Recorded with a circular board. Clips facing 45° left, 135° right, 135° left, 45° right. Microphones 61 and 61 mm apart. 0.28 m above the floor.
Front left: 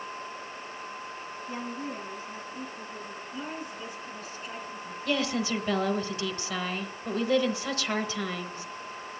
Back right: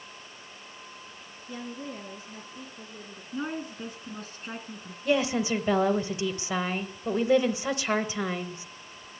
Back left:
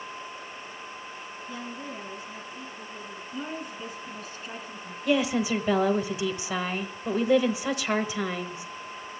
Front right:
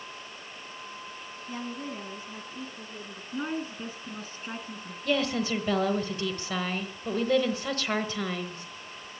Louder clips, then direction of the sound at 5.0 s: Back right 3 dB, back left 3 dB; 160° right.